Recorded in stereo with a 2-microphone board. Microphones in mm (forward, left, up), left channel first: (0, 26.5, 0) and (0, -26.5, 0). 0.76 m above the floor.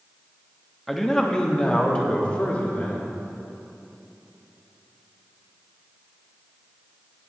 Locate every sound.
0.9 s a man speaking: 5° left (ahead or behind), 0.9 m; by 3.2 s 35° left (ahead or behind), 2 m